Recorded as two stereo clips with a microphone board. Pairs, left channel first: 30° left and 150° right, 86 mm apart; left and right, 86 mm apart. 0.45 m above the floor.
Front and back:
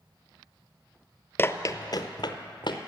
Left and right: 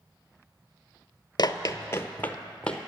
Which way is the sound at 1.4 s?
85° left.